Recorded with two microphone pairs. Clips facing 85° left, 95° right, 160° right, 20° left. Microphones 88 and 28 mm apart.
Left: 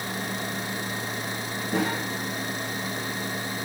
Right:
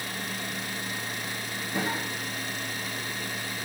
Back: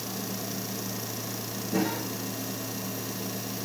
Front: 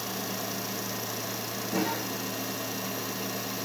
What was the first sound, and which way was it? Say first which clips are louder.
A cough: left 4 dB, back 1 dB; 105° left.